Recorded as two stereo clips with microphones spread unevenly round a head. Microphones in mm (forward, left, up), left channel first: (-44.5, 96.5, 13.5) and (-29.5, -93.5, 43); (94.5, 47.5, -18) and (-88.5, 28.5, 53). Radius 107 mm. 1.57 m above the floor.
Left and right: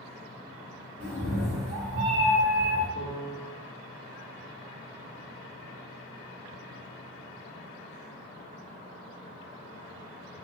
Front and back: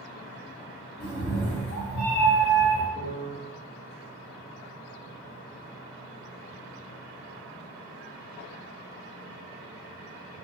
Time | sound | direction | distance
1.0 | a cat meowing | 45° right | 1.3 m
3.0 | a piano | 110° right | 0.6 m